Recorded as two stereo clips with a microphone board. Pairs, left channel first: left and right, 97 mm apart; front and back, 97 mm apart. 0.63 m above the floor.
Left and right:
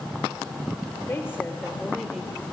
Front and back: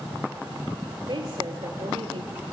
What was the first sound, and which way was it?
A woman speaking, 150° left.